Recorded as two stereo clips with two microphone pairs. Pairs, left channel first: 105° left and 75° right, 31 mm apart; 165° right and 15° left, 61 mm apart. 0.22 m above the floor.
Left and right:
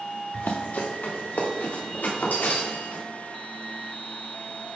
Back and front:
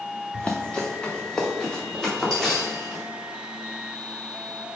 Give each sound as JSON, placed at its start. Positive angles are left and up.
{"t": 0.3, "sound": "running footsteps", "azimuth_deg": 130, "distance_m": 1.2}